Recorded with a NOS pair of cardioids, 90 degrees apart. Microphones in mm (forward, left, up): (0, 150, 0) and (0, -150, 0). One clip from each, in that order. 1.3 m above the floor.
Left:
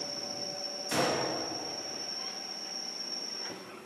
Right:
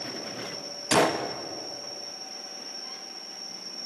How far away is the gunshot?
About 1.0 m.